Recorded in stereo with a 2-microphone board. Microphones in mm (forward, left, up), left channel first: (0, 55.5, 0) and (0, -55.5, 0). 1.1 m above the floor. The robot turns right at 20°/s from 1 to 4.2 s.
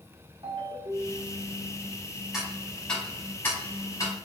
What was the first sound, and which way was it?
A ringtone, 50° right (ahead or behind).